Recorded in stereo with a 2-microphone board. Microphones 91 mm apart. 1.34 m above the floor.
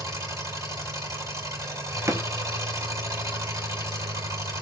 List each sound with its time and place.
0.0 s an engine running: 35° right (ahead or behind), 3.5 m
2.1 s a drawer: 35° right (ahead or behind), 0.8 m